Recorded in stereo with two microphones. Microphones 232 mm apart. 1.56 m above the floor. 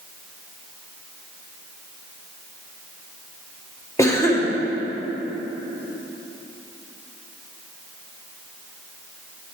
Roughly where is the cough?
Centre.